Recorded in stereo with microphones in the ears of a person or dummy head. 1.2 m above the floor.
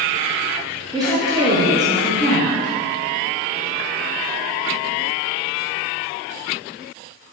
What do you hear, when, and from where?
0.9 s a woman speaking: 15° right (ahead or behind), 0.7 m